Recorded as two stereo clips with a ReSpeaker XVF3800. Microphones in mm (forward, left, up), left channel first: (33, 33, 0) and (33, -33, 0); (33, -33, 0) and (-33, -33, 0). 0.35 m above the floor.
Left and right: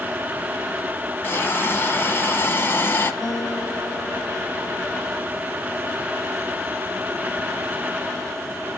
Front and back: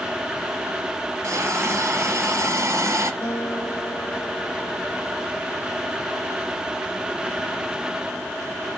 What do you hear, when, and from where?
1.2 s a hiss: 145° left, 1.2 m
3.2 s a guitar: 60° left, 7 m